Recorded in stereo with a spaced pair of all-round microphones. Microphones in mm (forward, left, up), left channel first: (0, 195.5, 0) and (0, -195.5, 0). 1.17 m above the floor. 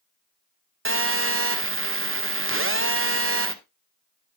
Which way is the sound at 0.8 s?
35° right (ahead or behind).